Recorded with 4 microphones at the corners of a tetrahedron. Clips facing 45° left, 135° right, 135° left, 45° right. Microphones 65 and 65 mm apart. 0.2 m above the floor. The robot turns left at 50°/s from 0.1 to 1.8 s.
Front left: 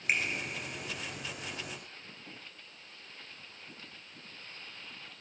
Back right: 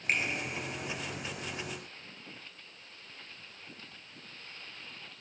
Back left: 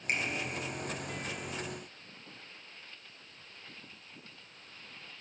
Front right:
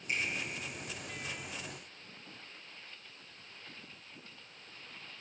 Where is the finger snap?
125° left, 2.5 m; by 0.2 s 120° left, 2.5 m.